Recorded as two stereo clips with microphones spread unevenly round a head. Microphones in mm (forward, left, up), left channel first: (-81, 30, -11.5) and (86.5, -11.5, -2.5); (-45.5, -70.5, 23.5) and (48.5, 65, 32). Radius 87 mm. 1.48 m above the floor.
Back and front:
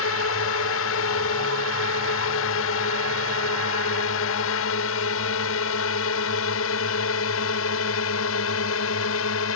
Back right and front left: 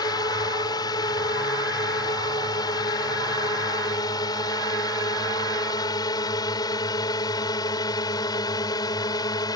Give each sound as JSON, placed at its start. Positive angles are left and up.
{"t": 0.0, "sound": "a drone", "azimuth_deg": 170}